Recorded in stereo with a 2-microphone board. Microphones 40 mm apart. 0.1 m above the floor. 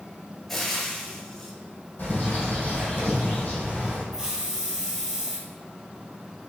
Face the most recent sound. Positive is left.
turn(degrees=-15)  # may be behind; listen again after turning